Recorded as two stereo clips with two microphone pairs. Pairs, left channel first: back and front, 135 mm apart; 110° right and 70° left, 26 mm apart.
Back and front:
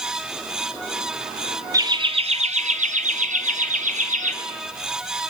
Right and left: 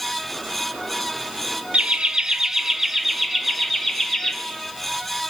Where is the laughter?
55° left, 1.1 m; by 4.3 s 20° right, 3 m.